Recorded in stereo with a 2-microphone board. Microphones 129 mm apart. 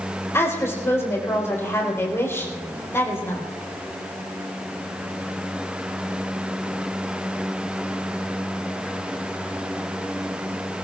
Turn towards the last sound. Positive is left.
turn(degrees=20)  # may be behind; listen again after turning